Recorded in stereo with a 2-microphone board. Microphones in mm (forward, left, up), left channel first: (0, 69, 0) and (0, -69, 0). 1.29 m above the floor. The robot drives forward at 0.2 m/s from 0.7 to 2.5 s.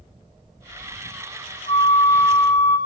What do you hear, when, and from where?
1.7 s a flute: 55° left (ahead or behind), 3 m; by 2.8 s 50° left (ahead or behind), 3 m